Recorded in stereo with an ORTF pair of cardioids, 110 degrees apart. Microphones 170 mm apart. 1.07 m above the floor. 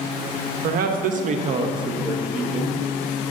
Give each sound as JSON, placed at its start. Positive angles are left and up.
{"t": 0.6, "sound": "a man speaking", "azimuth_deg": -65, "distance_m": 1.3}